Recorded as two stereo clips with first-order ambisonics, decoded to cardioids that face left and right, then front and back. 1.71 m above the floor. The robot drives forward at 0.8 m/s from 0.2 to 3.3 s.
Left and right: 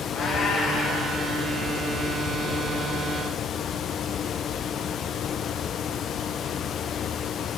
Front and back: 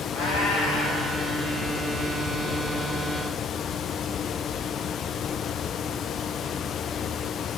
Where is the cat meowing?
35° left, 7 m; by 1.1 s 40° left, 6.5 m.